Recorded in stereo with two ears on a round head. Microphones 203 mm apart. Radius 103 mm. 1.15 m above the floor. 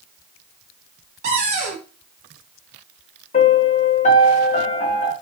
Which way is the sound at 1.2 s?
30° right (ahead or behind).